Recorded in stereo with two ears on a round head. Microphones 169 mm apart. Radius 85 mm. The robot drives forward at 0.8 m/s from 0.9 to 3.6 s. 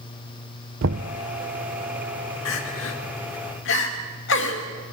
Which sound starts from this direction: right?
Knocking, at 0.8 s.